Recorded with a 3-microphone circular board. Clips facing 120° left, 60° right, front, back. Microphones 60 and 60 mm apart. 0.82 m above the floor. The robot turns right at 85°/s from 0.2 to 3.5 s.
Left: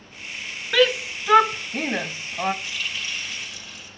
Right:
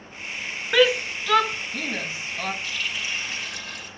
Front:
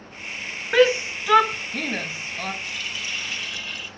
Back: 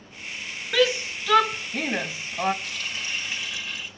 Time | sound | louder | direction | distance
0.7 | a shout | even, front 5 dB | 10° left | 0.7 m
2.6 | a running tap | right 1 dB, front 1 dB | 170° right | 2.5 m